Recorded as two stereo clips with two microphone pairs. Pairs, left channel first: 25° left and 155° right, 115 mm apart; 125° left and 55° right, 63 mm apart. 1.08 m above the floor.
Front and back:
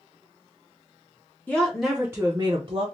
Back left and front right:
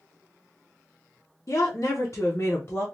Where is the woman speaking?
105° left, 0.7 m; by 2.9 s 175° left, 0.7 m.